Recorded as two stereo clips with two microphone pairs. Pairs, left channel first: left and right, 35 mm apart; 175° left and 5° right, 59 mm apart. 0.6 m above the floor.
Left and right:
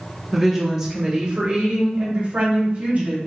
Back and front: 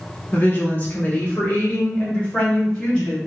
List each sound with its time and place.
0.3 s a woman speaking: 175° right, 1.2 m; by 3.2 s 115° right, 2 m